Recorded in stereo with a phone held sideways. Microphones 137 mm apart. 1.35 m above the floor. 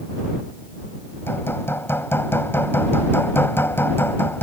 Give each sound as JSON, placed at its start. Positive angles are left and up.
{"t": 1.3, "sound": "hammering", "side_deg": 15}